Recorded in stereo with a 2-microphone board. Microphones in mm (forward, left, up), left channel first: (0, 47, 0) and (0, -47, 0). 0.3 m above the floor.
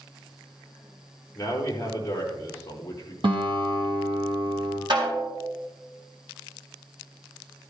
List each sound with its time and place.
1.4 s a man speaking: 30° left (ahead or behind), 5.5 m
3.2 s a guitar: 60° right (ahead or behind), 2.5 m
4.9 s a snare drum: 50° right (ahead or behind), 4 m